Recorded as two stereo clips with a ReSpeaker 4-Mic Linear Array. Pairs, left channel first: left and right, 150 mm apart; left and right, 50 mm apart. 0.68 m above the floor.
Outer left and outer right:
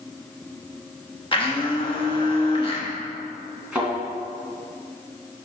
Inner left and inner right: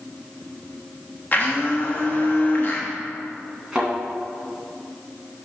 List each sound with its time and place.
1.3 s a blender: 35° left (ahead or behind), 1.1 m
3.7 s a thud: 10° right (ahead or behind), 2.5 m